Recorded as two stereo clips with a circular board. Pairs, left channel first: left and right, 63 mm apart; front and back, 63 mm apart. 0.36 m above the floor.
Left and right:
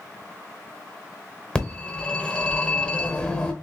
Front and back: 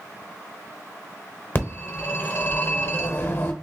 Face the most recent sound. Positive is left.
turn(degrees=25)